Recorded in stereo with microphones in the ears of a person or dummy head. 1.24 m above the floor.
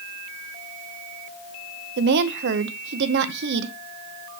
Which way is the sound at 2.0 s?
60° right (ahead or behind).